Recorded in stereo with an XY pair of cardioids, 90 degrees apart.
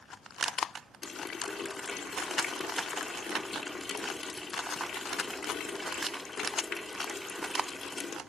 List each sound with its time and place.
1.0 s a running tap: 40° left, 2 m